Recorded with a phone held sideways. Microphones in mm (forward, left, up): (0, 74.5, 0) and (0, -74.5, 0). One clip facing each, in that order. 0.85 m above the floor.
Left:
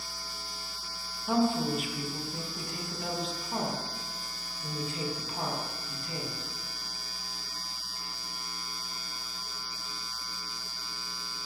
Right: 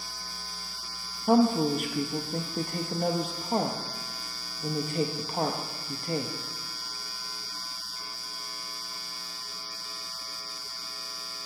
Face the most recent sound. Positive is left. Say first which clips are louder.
# right 5 dB
turn(degrees=-50)  # may be behind; listen again after turning